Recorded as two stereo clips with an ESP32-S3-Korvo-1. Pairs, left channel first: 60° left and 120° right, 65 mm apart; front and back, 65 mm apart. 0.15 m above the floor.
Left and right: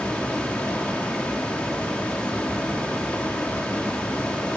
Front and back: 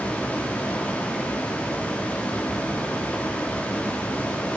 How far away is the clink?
No clink in this recording.